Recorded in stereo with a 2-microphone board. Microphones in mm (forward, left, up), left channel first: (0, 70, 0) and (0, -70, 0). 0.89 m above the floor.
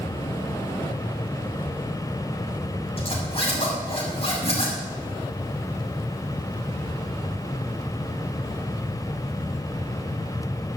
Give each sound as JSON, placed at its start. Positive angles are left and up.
{"t": 3.0, "sound": "a zipper", "side_deg": 40, "distance_m": 5.0}